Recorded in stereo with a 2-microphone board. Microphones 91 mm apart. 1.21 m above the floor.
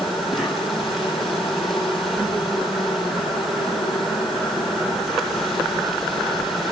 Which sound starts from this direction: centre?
An insect, at 0.0 s.